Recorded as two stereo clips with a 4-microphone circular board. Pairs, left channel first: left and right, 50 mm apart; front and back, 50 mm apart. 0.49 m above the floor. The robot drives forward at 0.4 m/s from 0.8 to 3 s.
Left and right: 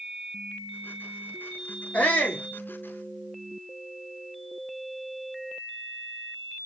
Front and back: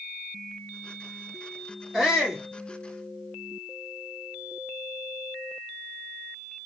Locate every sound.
1.9 s a shout: 90° left, 1.3 m; by 2.4 s 110° left, 1.3 m